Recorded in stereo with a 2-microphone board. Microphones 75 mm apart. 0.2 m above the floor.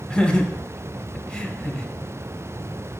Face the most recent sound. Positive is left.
turn(degrees=10)  # may be behind; listen again after turning